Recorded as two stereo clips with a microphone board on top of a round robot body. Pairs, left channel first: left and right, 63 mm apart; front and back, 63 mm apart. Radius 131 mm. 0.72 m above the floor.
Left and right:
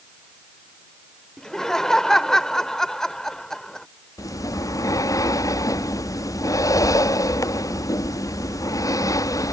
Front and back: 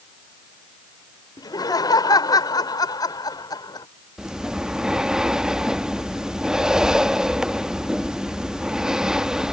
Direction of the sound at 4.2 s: 100° left.